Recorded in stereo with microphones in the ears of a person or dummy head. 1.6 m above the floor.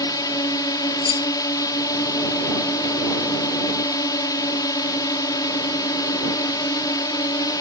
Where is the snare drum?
I don't hear a snare drum.